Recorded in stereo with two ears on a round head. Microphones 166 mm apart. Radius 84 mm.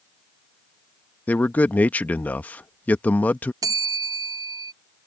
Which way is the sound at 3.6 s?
20° right (ahead or behind).